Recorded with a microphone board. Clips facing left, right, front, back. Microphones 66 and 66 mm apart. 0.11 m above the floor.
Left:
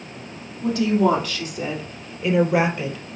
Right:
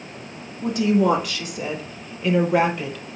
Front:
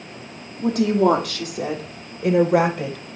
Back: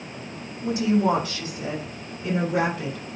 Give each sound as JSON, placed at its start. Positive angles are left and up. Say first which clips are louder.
{"t": 0.6, "sound": "a woman speaking", "louder": "even, front 4 dB", "azimuth_deg": -10, "distance_m": 4.5}